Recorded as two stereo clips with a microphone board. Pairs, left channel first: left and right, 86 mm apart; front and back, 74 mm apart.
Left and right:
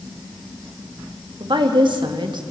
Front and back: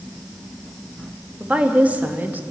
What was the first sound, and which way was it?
A woman speaking, 110° right.